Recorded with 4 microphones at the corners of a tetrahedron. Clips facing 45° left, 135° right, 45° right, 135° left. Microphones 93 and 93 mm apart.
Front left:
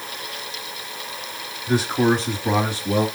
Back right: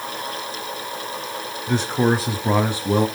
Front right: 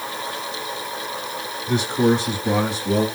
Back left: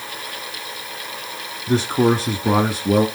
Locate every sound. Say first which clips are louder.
1.7 s a man speaking: front left 1 dB, back left 2 dB; 115° left, 1.1 m; by 3.1 s 160° left, 1.7 m